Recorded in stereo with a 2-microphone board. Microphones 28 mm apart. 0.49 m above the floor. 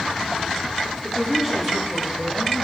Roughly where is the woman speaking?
Centre.